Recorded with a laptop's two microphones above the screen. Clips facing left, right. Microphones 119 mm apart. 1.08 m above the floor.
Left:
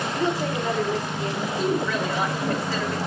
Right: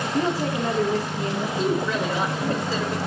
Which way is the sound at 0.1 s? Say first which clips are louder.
Right 2 dB; 35° right (ahead or behind).